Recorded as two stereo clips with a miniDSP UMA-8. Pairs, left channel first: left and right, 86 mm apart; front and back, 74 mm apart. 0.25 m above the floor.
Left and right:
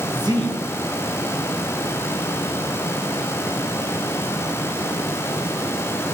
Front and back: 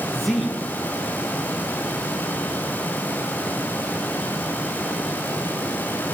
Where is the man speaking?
90° right, 3 m.